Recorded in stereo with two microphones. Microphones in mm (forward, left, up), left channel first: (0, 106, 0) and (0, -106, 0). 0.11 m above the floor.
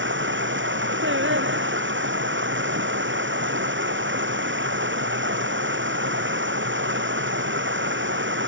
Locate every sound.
0.0 s running water: 65° right (ahead or behind)
1.0 s singing: 70° right (ahead or behind)